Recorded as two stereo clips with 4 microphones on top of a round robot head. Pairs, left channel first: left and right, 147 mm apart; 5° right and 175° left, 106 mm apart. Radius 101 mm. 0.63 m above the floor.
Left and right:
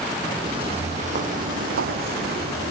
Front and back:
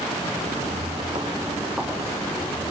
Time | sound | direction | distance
0.4 | footsteps | 145° right | 1.3 m